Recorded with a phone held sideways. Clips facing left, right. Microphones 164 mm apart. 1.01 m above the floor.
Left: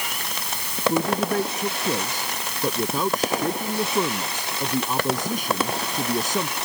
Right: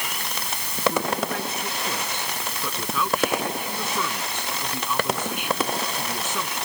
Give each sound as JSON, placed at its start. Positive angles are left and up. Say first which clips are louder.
{"t": 0.9, "sound": "a man speaking", "louder": "left 4 dB", "side_deg": 40}